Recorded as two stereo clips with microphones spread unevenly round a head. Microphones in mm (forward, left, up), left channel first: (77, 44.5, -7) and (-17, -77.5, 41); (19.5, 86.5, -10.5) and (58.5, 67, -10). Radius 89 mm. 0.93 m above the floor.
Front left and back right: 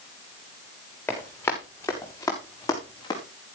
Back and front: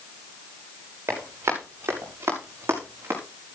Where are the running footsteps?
25° right, 7 m; by 3.2 s 15° right, 5 m.